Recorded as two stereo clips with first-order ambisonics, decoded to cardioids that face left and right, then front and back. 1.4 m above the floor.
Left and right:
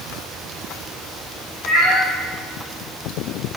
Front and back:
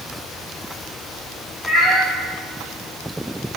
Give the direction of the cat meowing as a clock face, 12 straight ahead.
2 o'clock.